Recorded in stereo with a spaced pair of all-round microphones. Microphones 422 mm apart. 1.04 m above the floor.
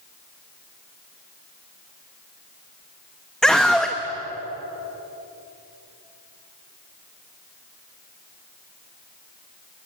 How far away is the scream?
About 1.2 m.